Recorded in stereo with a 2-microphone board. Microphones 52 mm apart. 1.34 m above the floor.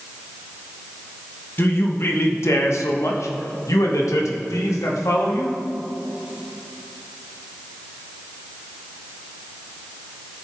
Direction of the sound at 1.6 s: 40° left (ahead or behind).